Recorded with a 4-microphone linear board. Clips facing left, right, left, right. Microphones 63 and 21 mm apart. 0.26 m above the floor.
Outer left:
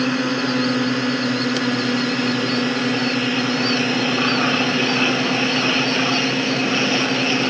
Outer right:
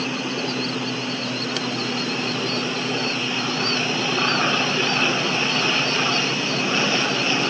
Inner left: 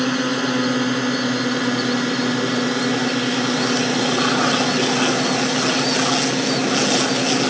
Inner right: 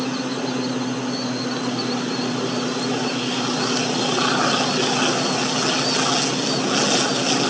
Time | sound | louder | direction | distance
0.0 | a drone | outer left 6 dB, inner left 4 dB | 65° left (ahead or behind) | ?